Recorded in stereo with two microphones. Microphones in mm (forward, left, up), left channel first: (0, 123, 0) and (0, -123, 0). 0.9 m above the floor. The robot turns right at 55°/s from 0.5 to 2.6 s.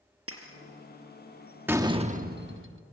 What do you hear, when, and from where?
0.3 s breaking glass: 80° right, 4 m
1.7 s a door slam: 170° right, 1.1 m; by 2.8 s 120° right, 1.1 m